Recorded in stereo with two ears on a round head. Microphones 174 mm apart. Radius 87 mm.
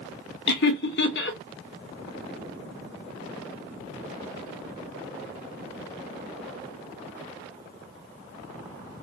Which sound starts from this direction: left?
Laughter, at 0.5 s.